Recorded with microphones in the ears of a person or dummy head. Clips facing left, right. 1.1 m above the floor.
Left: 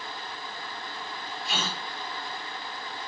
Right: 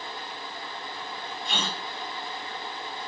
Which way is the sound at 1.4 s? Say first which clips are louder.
Even; 15° left (ahead or behind).